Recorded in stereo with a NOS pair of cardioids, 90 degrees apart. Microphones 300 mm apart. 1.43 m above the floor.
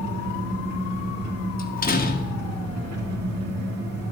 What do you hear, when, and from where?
0.0 s an engine running: 60° right, 2.5 m
1.6 s a door slam: 30° left, 1.1 m